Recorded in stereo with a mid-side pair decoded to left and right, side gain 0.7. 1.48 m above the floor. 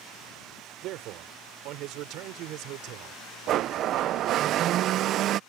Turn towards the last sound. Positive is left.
turn(degrees=-50)